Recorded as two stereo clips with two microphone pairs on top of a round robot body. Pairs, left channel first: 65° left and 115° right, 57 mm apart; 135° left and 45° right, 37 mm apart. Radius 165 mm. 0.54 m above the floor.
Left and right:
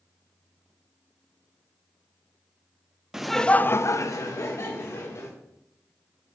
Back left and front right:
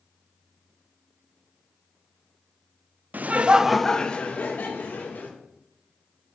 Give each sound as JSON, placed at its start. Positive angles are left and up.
{"t": 3.1, "sound": "laughter", "azimuth_deg": -45, "distance_m": 0.9}